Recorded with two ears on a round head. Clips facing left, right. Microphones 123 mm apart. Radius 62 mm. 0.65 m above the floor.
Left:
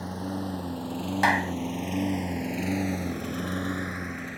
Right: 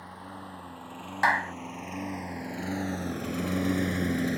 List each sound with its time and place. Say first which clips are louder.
0.0 s a lawn mower: left 10 dB; 50° left (ahead or behind); by 4.4 s 45° right (ahead or behind)
1.2 s a clap: left 1 dB; 25° left (ahead or behind)